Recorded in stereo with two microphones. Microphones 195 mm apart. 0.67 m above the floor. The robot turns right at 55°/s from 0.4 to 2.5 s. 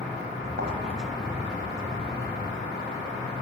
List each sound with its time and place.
0.6 s a thud: 65° right (ahead or behind), 2 m; by 0.7 s 75° right (ahead or behind), 2 m